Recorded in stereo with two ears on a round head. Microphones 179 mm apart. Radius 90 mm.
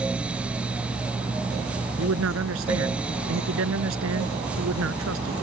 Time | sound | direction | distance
2.0 | a man speaking | 80° right | ?